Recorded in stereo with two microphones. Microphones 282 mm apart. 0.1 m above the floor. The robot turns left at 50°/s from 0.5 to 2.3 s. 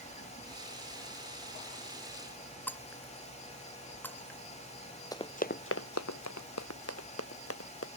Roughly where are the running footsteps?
Centre.